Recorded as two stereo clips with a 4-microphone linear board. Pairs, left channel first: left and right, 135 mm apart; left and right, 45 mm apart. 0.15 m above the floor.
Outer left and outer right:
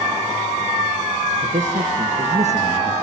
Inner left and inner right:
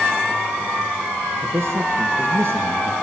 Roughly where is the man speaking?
Right.